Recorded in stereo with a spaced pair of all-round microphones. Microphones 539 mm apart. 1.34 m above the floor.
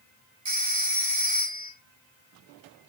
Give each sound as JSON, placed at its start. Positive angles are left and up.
{"t": 0.5, "sound": "a phone ringing", "side_deg": -50, "distance_m": 1.1}